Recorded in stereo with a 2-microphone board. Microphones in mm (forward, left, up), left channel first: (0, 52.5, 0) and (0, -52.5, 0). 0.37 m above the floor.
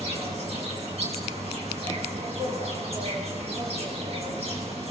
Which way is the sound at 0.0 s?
65° right (ahead or behind).